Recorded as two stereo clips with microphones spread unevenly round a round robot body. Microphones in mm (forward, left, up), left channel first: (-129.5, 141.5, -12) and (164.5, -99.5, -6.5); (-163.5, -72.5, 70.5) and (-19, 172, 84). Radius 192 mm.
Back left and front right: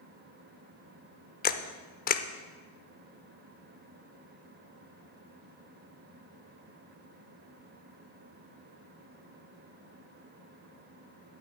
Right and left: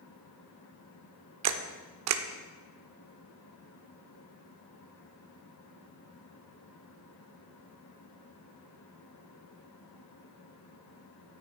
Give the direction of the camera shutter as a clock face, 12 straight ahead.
10 o'clock.